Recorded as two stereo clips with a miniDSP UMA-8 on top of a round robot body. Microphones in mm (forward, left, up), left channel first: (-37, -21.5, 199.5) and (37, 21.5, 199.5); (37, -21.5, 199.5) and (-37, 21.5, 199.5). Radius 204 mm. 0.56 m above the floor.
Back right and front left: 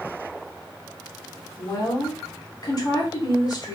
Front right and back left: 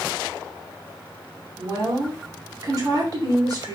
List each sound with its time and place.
1.6 s a woman speaking: straight behind, 2.5 m